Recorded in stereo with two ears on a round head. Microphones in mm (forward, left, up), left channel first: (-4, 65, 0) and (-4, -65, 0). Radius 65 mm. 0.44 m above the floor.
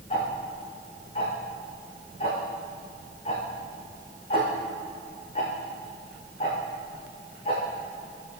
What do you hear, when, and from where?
0.1 s ticking: 40° left (ahead or behind), 6 m